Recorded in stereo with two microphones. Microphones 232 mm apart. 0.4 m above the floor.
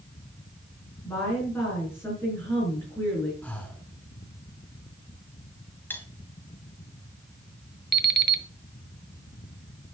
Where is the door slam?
I don't hear a door slam.